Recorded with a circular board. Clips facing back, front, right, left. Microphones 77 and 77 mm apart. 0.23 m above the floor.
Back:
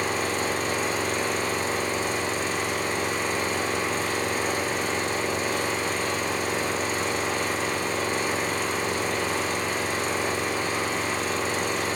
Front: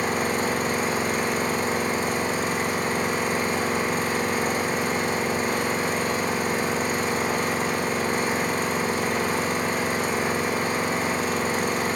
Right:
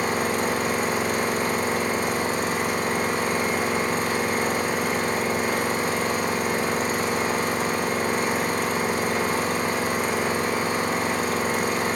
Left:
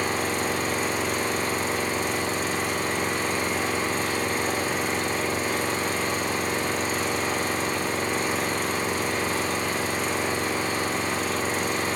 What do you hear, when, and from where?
0.0 s an engine running: 50° right, 5 m